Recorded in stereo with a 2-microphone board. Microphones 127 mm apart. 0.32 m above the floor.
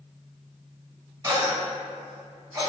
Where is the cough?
25° right (ahead or behind), 1.7 m.